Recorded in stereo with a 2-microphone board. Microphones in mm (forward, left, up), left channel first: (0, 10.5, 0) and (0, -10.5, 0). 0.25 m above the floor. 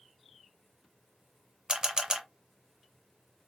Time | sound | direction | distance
1.7 | a camera shutter | 40° right (ahead or behind) | 0.7 m